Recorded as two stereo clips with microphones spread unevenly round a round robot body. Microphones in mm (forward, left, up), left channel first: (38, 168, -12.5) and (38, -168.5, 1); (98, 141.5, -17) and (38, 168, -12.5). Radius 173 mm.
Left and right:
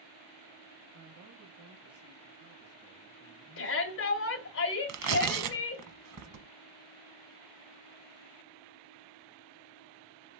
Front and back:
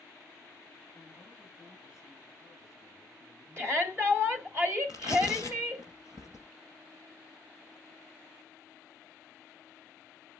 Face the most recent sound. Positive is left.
turn(degrees=-135)